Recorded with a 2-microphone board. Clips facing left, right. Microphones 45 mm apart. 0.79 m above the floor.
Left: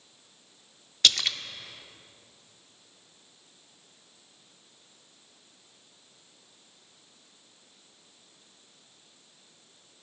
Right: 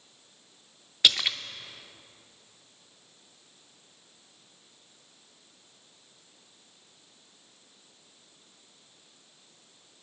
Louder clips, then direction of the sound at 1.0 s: Right 1 dB; 15° right (ahead or behind).